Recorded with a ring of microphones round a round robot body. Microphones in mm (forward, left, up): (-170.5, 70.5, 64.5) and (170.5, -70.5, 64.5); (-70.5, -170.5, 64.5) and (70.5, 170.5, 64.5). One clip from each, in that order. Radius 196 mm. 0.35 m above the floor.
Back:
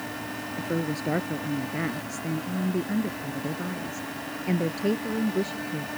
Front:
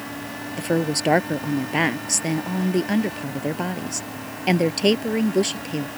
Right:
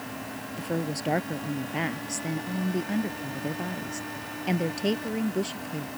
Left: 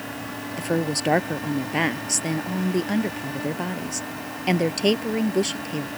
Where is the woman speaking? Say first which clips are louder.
Front 8 dB, left 7 dB; 5° left.